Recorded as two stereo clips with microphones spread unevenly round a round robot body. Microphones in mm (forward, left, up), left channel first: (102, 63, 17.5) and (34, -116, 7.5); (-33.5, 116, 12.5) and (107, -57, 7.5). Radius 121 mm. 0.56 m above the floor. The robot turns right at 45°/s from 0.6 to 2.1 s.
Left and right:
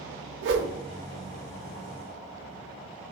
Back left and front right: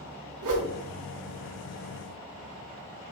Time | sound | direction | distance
0.4 | a whoosh | 90° right | 0.7 m